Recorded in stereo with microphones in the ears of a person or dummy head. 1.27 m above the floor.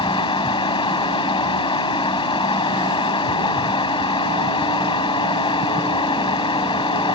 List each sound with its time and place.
0.0 s running water: 20° left (ahead or behind)